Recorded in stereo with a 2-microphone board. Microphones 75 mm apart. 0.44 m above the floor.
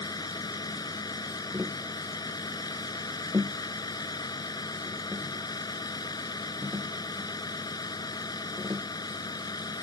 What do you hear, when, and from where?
0.0 s a vehicle: 65° left (ahead or behind)
1.5 s tapping: 30° right (ahead or behind)